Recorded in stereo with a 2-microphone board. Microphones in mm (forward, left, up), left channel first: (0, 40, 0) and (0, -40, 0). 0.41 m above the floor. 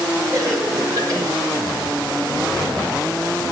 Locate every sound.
0.3 s a cough: 40° right (ahead or behind), 7.5 m